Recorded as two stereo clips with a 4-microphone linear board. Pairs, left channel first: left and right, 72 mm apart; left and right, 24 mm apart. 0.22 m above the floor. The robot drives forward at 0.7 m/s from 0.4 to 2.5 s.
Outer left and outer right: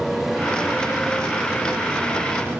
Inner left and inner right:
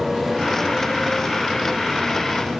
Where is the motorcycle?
5° right (ahead or behind); by 2.6 s 20° right (ahead or behind).